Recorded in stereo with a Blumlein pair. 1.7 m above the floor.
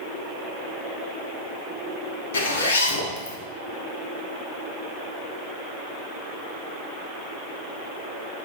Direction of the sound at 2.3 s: 65° left.